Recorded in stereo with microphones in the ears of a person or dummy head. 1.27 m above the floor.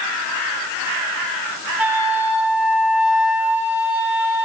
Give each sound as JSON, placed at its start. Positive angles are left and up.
{"t": 1.8, "sound": "a flute", "side_deg": -5, "distance_m": 1.4}